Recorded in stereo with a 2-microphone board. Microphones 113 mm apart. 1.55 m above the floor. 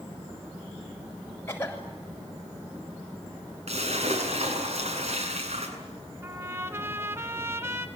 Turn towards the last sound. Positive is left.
turn(degrees=-20)  # may be behind; listen again after turning